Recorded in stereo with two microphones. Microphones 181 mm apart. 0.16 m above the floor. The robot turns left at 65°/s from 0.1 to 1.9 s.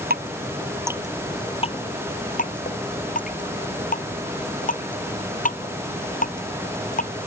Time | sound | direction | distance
0.1 | dripping | 60° right (ahead or behind) | ?